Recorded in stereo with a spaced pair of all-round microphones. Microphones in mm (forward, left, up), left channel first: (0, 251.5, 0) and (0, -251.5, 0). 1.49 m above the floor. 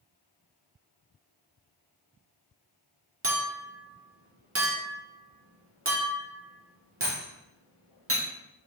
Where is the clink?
30° right (ahead or behind), 0.5 m.